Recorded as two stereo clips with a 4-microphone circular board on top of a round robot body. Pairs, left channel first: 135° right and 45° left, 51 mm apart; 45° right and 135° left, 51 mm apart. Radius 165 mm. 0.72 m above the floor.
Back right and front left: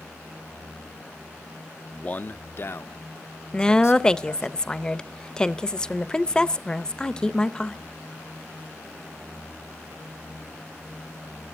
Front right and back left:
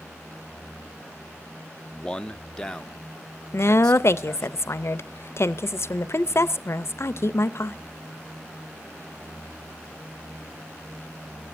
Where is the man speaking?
95° right, 0.6 m; by 4.5 s 125° right, 1.6 m.